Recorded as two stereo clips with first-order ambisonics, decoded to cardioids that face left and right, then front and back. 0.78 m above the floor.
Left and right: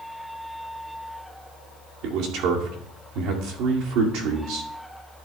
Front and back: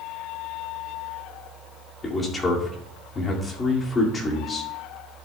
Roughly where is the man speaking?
Right.